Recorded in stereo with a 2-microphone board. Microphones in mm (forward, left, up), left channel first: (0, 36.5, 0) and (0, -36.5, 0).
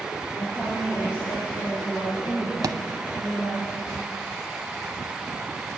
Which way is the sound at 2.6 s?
60° right (ahead or behind).